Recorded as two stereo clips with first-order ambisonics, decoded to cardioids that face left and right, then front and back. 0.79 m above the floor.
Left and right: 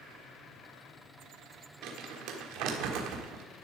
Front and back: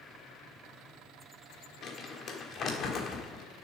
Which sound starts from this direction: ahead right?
Crumpling, at 1.8 s.